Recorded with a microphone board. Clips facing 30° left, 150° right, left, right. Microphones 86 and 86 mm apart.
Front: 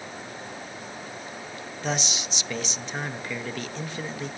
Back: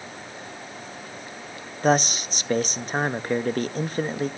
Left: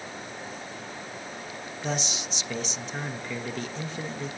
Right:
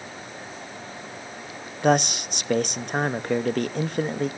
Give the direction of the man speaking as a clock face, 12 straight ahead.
4 o'clock.